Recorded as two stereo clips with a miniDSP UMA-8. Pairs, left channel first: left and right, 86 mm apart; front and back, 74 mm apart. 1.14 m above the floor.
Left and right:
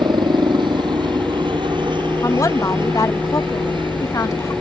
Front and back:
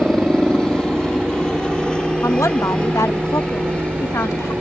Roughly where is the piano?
I don't hear a piano.